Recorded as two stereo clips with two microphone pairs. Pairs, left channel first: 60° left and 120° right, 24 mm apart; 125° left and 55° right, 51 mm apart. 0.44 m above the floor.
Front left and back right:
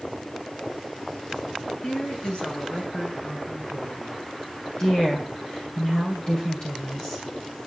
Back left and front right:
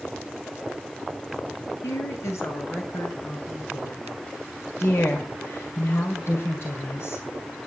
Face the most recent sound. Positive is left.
turn(degrees=110)